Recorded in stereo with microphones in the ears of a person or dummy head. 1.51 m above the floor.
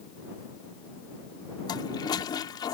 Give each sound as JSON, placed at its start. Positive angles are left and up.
{"t": 1.7, "sound": "a toilet flushing", "side_deg": 20}